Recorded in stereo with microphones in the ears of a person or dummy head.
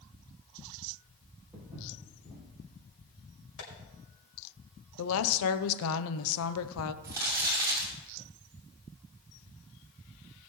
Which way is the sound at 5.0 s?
80° left.